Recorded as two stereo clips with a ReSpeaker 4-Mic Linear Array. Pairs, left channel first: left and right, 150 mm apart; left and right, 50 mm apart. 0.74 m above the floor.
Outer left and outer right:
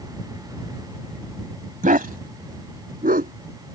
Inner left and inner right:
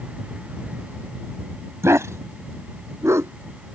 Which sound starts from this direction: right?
A dog barking, at 1.8 s.